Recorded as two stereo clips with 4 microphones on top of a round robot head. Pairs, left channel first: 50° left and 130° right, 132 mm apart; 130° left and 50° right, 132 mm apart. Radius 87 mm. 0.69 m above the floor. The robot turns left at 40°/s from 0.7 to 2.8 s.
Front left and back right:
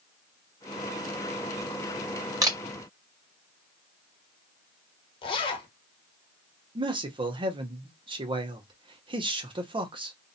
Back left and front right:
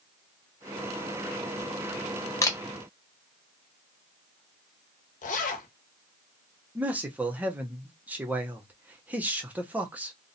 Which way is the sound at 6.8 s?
120° right.